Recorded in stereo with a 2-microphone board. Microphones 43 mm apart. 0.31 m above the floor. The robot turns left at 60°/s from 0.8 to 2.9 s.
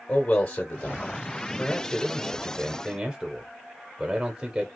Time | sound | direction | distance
0.1 | a man speaking | 25° left (ahead or behind) | 1.0 m